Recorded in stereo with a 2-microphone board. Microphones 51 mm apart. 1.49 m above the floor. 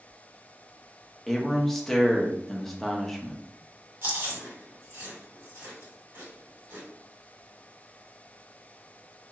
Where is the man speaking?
5° left (ahead or behind), 0.7 m.